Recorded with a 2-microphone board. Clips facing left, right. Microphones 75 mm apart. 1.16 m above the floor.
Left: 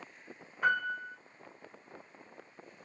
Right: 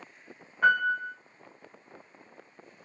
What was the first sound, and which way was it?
A piano, 60° right (ahead or behind).